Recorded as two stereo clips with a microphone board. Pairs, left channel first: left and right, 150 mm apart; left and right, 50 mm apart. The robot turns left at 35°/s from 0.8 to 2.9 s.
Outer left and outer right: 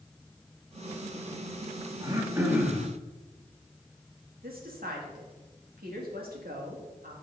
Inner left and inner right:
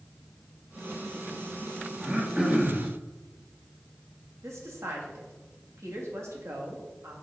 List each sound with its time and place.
2.0 s throat clearing: 150° right, 1.4 m; by 2.9 s straight behind, 1.4 m
4.4 s a woman speaking: 80° right, 2 m